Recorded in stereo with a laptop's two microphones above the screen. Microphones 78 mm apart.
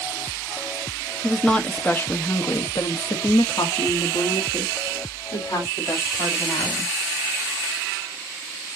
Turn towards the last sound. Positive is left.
turn(degrees=60)  # may be behind; listen again after turning